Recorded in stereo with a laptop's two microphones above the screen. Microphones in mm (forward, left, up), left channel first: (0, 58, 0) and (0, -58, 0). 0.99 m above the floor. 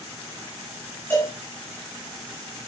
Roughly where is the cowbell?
Centre.